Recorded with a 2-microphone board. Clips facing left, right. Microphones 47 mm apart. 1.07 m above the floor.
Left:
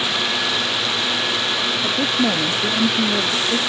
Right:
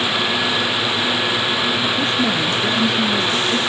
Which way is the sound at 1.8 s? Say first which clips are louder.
Right 1 dB; 25° left (ahead or behind).